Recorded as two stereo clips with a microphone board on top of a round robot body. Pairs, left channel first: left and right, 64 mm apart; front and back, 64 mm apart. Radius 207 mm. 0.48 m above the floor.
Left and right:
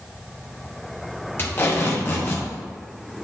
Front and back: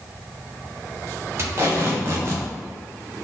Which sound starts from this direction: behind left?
Tape being pulled, at 1.4 s.